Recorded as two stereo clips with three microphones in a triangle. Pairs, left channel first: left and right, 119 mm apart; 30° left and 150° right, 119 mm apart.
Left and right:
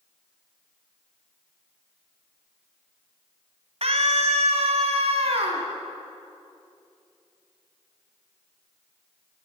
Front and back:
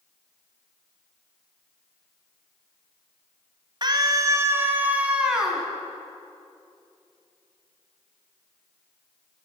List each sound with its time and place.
3.8 s a scream: 105° right, 1.9 m; by 5.7 s 60° right, 3 m